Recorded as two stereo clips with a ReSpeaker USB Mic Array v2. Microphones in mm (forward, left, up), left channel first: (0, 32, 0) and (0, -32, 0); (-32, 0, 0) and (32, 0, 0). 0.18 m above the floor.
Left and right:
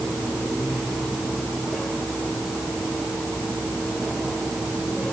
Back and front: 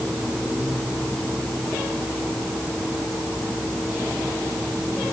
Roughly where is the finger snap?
I don't hear a finger snap.